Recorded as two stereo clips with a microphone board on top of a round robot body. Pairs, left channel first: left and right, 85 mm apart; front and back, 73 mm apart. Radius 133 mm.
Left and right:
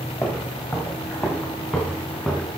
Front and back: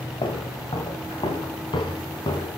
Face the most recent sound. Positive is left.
turn(degrees=15)